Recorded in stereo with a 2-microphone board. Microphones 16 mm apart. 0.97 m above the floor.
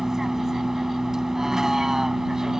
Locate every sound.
0.0 s a vehicle: 30° right (ahead or behind)